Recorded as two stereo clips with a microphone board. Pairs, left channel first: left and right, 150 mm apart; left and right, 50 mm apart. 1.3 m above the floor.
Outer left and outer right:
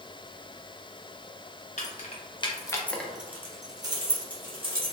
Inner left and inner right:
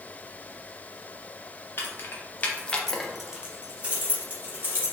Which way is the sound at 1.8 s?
50° left (ahead or behind).